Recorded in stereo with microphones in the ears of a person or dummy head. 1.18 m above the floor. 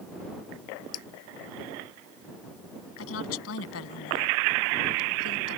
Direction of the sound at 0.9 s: 75° left (ahead or behind).